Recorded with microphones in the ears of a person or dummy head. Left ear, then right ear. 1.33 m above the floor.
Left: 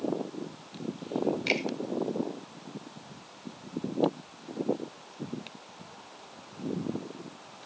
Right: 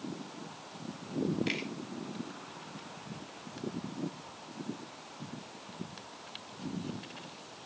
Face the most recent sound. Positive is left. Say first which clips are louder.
# left 7 dB
turn(degrees=25)  # may be behind; listen again after turning